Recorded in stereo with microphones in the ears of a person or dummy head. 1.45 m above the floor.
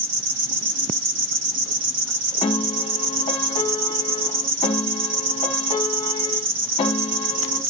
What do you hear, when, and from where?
0.0 s an insect: 65° right (ahead or behind), 1.7 m
2.4 s a piano: 20° left (ahead or behind), 1.5 m